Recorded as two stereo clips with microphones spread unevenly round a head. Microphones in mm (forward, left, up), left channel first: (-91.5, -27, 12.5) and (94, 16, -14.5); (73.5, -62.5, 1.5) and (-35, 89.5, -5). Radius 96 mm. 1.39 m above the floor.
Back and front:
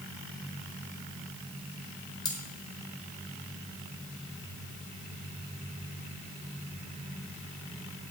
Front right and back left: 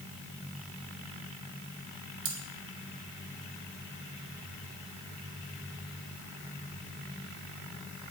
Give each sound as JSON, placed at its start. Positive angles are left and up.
{"t": 2.2, "sound": "cutlery clinking", "azimuth_deg": 130, "distance_m": 1.4}